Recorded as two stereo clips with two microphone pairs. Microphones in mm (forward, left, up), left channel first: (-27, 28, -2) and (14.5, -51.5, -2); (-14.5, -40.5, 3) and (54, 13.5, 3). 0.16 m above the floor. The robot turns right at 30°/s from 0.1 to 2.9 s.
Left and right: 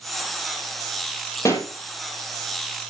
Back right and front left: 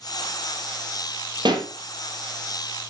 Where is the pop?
65° left, 3 m; by 1.7 s 75° left, 3 m.